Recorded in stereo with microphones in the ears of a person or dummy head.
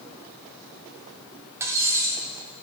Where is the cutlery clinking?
10° right (ahead or behind), 0.7 m.